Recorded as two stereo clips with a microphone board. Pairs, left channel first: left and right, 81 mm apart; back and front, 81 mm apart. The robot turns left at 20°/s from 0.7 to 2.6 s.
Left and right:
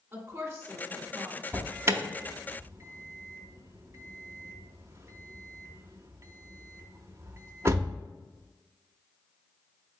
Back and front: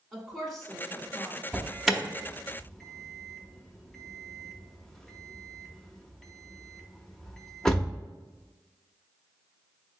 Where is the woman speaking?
90° right, 1.2 m; by 1.4 s 105° right, 1.2 m.